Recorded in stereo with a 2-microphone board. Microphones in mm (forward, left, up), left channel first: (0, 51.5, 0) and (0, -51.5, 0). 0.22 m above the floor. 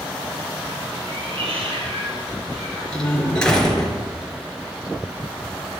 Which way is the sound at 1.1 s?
60° right (ahead or behind).